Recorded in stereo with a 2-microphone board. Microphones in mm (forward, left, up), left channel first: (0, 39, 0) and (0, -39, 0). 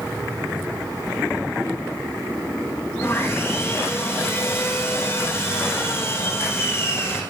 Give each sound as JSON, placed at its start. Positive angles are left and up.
{"t": 3.0, "sound": "sawing", "side_deg": 30, "distance_m": 4.0}